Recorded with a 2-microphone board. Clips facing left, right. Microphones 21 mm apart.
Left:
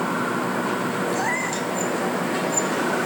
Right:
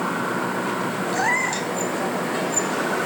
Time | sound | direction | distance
1.1 | a cat meowing | 15° right (ahead or behind) | ?